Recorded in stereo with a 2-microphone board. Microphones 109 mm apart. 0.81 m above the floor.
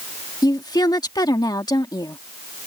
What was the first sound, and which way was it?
A woman speaking, 40° left (ahead or behind).